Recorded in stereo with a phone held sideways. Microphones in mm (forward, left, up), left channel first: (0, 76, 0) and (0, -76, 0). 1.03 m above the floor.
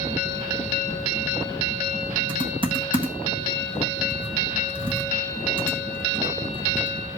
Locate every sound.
2.3 s typing on a keyboard: 35° right (ahead or behind), 1.5 m